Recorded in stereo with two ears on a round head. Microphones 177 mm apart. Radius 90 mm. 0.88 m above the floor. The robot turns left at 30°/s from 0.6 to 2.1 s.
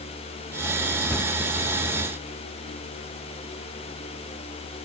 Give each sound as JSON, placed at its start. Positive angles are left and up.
{"t": 1.1, "sound": "a cupboard door", "side_deg": 5, "distance_m": 0.7}